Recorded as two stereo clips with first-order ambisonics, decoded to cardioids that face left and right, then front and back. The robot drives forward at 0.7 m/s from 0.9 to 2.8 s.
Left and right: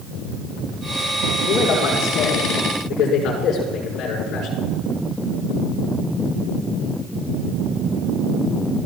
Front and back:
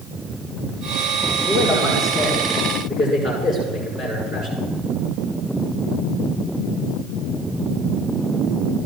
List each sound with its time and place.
1.5 s a man speaking: 105° left, 6.5 m; by 4.6 s 115° left, 7 m